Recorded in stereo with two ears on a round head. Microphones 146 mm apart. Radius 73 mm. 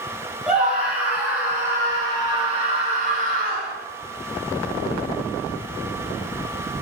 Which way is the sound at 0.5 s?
5° right (ahead or behind).